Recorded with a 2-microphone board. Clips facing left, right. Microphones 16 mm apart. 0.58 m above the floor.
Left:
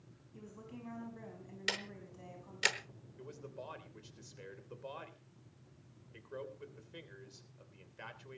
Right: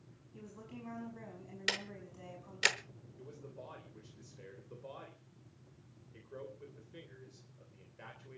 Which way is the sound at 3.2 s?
35° left (ahead or behind).